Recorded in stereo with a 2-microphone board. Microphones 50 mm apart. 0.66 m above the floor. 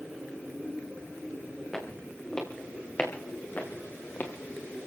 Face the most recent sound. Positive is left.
turn(degrees=40)  # may be behind; listen again after turning